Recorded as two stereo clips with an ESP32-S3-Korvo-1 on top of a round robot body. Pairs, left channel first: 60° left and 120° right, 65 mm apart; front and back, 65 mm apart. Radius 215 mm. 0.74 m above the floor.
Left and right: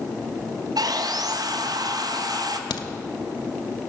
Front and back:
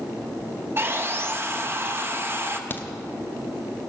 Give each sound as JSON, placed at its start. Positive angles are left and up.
{"t": 0.8, "sound": "sawing", "azimuth_deg": -125, "distance_m": 1.0}
{"t": 2.7, "sound": "a crack", "azimuth_deg": 65, "distance_m": 0.6}